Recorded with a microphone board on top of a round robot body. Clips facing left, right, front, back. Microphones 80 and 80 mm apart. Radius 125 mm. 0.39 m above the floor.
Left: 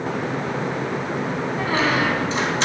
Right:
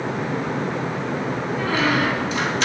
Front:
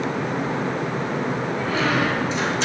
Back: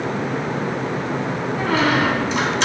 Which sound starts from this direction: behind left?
A squeak, at 1.6 s.